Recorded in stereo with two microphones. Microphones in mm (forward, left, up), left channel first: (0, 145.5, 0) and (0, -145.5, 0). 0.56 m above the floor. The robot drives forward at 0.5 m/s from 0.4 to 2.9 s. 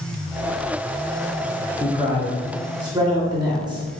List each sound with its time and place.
1.8 s a man speaking: 15° right (ahead or behind), 0.7 m